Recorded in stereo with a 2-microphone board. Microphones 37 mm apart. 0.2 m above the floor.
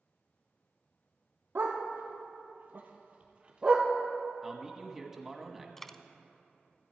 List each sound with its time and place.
1.6 s a dog barking: 75° right (ahead or behind), 1.7 m; by 3.9 s 20° right (ahead or behind), 1.3 m
4.4 s a man speaking: 10° right (ahead or behind), 1.1 m
5.8 s a dropped coin: 10° left (ahead or behind), 0.5 m